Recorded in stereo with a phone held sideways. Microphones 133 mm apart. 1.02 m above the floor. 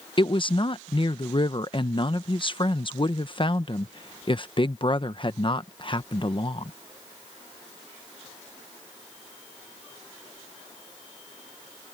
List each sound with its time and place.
0.2 s a woman speaking: 40° left (ahead or behind)